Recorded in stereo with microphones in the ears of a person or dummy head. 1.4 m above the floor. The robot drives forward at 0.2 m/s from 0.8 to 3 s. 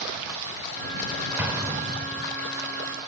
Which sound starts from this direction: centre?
An explosion, at 1.4 s.